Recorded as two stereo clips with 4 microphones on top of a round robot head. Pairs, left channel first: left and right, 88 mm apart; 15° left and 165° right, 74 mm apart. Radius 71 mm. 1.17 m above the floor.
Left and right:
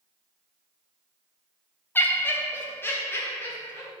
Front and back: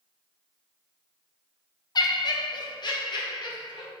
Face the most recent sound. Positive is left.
turn(degrees=25)